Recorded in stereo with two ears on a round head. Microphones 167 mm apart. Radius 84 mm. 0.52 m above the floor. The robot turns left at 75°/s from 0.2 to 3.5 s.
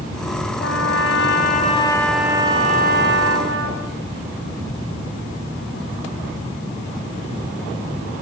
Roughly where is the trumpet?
Behind left.